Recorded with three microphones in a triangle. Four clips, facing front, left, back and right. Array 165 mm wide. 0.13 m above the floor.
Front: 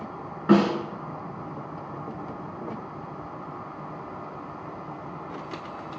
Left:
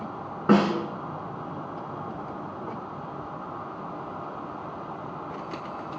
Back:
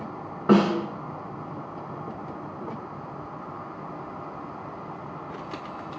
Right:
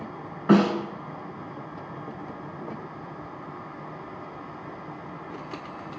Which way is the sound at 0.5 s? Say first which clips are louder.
Right 1 dB, even; 125° left.